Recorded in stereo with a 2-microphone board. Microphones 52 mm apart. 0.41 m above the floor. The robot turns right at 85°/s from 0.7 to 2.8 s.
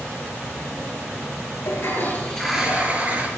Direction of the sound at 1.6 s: 110° left.